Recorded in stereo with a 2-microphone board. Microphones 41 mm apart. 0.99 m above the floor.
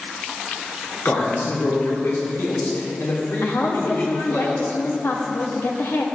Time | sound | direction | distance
1.1 | a man speaking | 75° left (ahead or behind) | 2.5 m
3.4 | a woman speaking | 75° left (ahead or behind) | 1.4 m